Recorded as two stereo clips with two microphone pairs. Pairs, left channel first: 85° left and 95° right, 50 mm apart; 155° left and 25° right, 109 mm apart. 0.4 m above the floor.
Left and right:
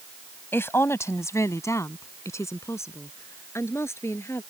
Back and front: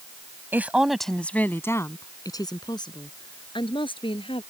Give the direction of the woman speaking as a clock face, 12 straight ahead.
10 o'clock.